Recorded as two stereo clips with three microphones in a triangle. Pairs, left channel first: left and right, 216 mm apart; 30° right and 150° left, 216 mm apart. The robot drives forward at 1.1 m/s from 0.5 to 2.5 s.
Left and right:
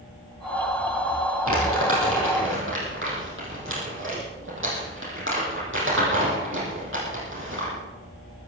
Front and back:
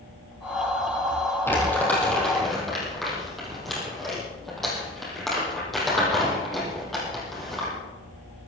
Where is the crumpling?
110° right, 6 m; by 7.7 s 120° right, 6.5 m.